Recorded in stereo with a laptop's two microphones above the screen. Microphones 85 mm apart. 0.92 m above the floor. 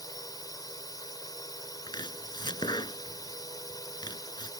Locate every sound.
0.0 s a drone: 50° left (ahead or behind)
1.9 s chopping: 60° left (ahead or behind)